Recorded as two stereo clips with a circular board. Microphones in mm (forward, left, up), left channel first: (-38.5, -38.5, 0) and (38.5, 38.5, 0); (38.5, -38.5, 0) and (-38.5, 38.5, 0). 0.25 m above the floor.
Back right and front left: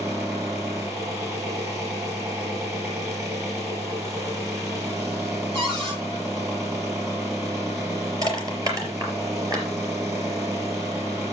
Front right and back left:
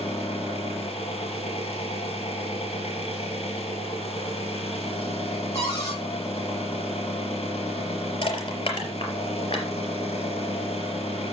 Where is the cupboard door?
10° left, 8 m.